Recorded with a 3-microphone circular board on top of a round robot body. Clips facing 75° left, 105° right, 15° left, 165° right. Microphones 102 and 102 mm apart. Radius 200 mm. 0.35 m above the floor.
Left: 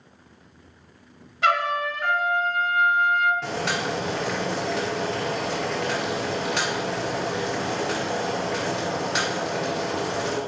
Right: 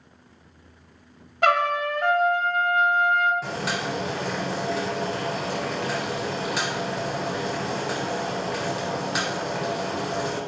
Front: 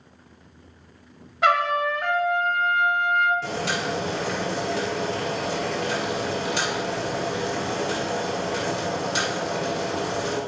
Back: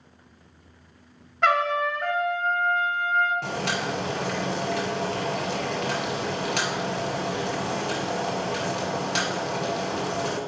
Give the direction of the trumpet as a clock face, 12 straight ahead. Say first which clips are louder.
Right 2 dB, front 1 dB; 2 o'clock.